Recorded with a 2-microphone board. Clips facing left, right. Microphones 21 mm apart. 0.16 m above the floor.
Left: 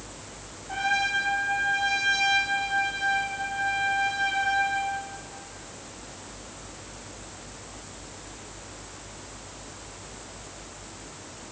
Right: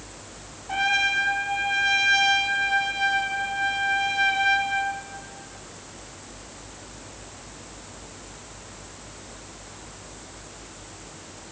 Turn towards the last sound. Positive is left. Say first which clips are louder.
# right 3 dB
turn(degrees=-35)  # may be behind; listen again after turning